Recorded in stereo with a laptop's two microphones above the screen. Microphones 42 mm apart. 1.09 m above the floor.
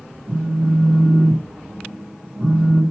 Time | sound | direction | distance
0.3 | a phone buzzing | 40° right (ahead or behind) | 1.3 m